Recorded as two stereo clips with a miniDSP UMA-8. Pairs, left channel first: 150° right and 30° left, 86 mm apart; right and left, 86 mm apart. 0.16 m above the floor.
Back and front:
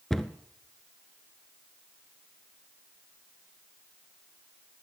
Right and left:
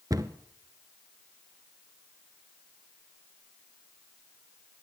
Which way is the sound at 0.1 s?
125° left.